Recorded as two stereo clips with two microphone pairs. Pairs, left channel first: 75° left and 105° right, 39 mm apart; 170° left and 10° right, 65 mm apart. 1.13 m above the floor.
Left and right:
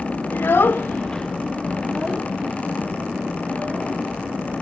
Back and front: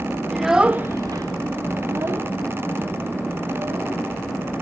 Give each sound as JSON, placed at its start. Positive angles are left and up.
{"t": 0.3, "sound": "a child speaking", "azimuth_deg": 75, "distance_m": 1.0}